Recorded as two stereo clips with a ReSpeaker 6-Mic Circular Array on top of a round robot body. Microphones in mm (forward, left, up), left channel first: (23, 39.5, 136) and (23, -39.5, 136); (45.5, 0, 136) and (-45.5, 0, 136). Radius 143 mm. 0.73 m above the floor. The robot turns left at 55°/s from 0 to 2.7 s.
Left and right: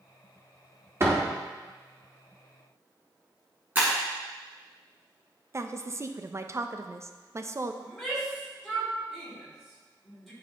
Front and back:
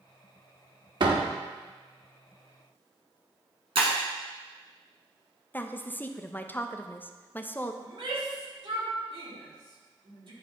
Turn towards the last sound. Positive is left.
turn(degrees=-175)